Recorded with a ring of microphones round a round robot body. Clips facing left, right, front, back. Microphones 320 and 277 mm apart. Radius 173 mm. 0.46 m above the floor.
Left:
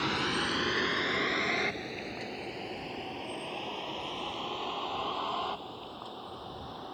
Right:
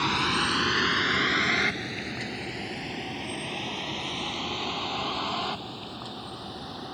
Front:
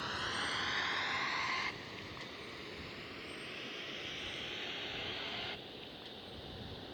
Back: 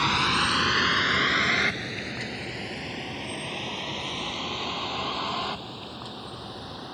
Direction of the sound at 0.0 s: 160° right.